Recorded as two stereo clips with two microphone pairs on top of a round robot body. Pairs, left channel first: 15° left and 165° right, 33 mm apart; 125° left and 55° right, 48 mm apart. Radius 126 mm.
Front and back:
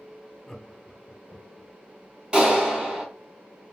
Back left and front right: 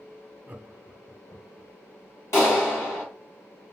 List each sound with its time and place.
0.5 s laughter: 60° right, 1.0 m; by 1.7 s 100° left, 1.5 m
2.3 s a clap: 130° left, 2 m